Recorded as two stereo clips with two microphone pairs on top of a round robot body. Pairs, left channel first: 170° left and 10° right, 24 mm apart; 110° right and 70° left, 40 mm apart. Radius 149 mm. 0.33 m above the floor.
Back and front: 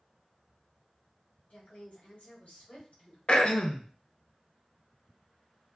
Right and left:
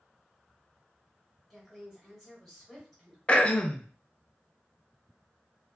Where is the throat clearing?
165° right, 0.6 m.